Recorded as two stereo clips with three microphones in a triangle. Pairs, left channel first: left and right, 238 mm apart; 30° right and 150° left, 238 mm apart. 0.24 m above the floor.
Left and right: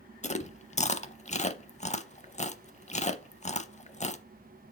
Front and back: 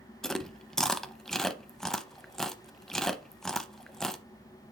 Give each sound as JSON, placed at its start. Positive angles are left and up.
{"t": 0.2, "sound": "chewing", "azimuth_deg": 55, "distance_m": 0.6}